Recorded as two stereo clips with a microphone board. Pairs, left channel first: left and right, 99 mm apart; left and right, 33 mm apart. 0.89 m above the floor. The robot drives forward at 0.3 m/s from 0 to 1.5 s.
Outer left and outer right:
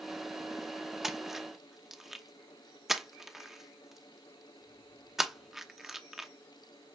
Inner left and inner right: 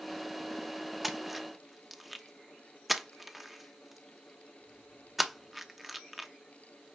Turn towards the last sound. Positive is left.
turn(degrees=0)  # may be behind; listen again after turning